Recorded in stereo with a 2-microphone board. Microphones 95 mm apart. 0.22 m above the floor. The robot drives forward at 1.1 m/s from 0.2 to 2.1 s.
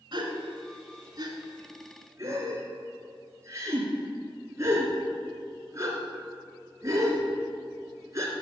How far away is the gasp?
About 1.6 m.